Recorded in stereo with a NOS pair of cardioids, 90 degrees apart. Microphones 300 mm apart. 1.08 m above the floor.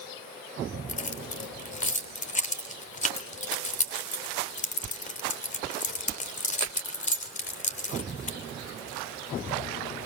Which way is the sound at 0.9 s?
25° left.